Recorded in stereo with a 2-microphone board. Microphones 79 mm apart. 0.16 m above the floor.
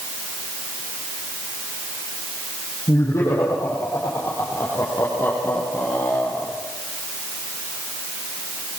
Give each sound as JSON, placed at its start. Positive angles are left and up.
{"t": 2.9, "sound": "laughter", "side_deg": 35, "distance_m": 6.5}